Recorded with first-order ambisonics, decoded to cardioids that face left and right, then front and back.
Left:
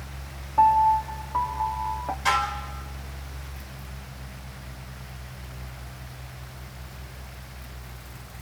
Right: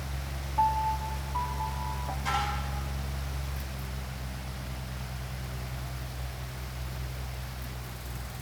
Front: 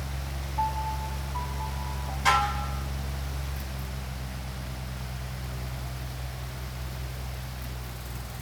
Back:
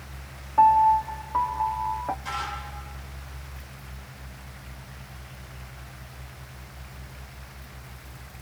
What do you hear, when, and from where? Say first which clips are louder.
0.6 s a piano: left 9 dB, back 13 dB; 145° left, 0.7 m
2.2 s dishes clattering: left 7 dB, front 8 dB; 40° left, 5.5 m